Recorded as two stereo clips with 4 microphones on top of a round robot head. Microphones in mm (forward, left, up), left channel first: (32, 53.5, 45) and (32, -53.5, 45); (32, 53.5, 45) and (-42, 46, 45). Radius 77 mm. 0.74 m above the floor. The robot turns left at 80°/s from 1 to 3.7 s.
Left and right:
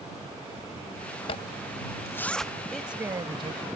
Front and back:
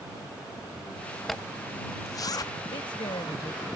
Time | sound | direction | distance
1.3 | a zipper | 95° left | ?
2.7 | a woman speaking | 5° left | ?